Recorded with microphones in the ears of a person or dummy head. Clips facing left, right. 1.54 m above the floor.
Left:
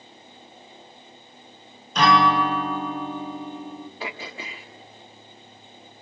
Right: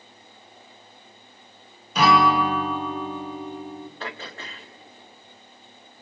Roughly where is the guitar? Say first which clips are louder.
Even; centre.